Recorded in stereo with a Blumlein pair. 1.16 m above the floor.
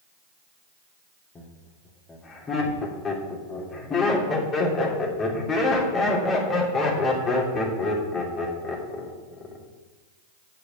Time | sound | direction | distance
1.4 | laughter | 20° left | 3 m